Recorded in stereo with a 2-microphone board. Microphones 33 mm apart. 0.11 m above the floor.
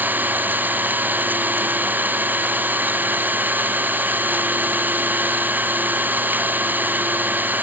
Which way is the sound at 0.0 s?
65° right (ahead or behind).